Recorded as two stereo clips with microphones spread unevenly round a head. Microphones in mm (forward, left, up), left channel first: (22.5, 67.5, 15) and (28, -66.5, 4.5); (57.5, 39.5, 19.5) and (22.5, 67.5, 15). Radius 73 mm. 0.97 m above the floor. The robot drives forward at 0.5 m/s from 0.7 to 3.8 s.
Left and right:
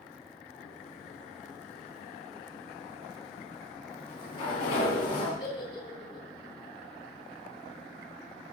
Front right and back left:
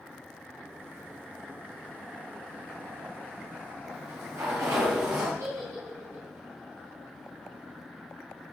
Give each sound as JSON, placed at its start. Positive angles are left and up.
{"t": 3.9, "sound": "a sliding door", "azimuth_deg": 150, "distance_m": 5.5}
{"t": 5.4, "sound": "a giggle", "azimuth_deg": 155, "distance_m": 4.5}